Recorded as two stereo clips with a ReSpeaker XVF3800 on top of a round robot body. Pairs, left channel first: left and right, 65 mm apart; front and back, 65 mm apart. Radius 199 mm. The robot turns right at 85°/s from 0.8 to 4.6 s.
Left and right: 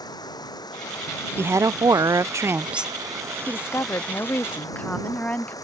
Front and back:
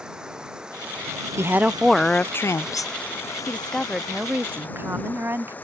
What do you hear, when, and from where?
0.0 s running water: 100° left; by 5.7 s 65° left
1.4 s a woman speaking: 135° right; by 2.9 s 5° right
3.5 s a woman speaking: 50° left; by 5.5 s 145° left